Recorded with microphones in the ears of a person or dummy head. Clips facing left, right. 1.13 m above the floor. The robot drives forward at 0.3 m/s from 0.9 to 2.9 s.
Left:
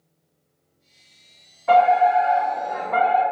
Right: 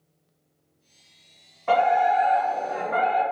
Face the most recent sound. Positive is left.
turn(degrees=-40)  # may be behind; listen again after turning